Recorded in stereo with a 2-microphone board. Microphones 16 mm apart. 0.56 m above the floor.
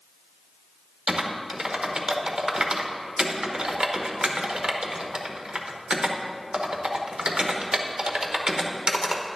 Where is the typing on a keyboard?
65° right (ahead or behind), 0.9 m.